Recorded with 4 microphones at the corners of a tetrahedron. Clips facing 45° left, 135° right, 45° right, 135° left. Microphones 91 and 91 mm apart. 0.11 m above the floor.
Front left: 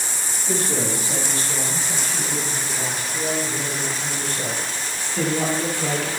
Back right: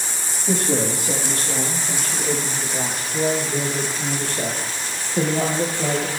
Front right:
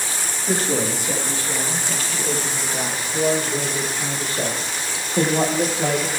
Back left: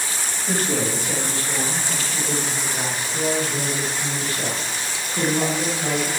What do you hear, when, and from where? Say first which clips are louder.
0.5 s a man speaking: back right 3 dB, front right 2 dB; 120° right, 6 m; by 6.1 s 80° right, 3.5 m